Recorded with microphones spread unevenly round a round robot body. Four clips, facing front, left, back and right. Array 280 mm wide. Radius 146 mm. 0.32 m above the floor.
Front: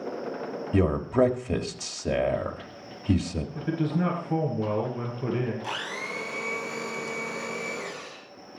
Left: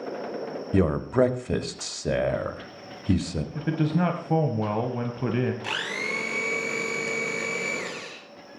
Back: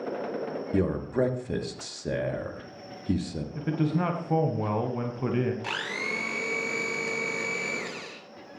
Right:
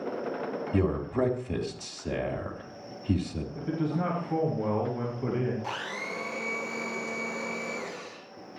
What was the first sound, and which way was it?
A man speaking, 40° left.